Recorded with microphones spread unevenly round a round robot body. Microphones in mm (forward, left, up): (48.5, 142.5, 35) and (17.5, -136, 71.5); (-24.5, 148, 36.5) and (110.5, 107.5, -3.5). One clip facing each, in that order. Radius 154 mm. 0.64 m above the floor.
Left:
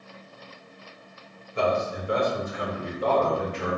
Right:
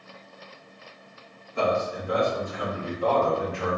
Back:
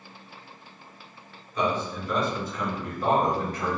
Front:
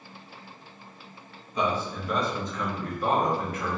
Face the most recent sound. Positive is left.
turn(degrees=125)